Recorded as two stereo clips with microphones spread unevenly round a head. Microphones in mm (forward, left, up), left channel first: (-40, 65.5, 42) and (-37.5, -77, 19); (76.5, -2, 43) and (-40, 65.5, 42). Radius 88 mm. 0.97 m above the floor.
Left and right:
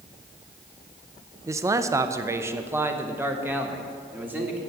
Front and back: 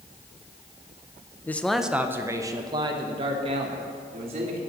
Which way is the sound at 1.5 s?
90° right.